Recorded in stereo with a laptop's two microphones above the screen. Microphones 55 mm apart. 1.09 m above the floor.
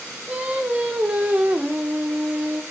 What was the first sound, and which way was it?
Singing, 25° right (ahead or behind).